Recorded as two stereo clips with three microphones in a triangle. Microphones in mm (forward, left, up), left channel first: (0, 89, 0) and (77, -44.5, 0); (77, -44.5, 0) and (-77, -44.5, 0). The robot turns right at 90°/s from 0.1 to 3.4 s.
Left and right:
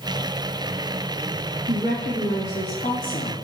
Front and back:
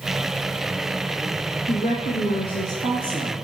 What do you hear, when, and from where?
1.7 s a woman speaking: 25° right, 3 m; by 3.3 s 130° left, 3 m